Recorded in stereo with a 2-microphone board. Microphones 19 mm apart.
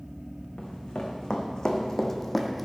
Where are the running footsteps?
40° left (ahead or behind), 2.5 m; by 2.7 s 10° right (ahead or behind), 1.2 m.